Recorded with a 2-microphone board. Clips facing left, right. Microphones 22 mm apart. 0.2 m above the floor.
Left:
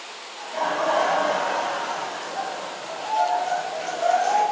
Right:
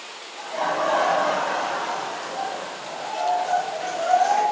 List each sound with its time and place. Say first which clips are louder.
0.4 s laughter: right 1 dB; 20° left (ahead or behind), 1.7 m; by 4.4 s 25° left (ahead or behind), 1.9 m